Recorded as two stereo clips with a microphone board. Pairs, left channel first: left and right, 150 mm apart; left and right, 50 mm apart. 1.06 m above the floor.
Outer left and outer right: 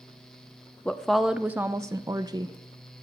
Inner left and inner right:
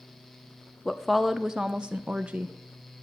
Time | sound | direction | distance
0.8 | a woman speaking | 5° left (ahead or behind) | 0.7 m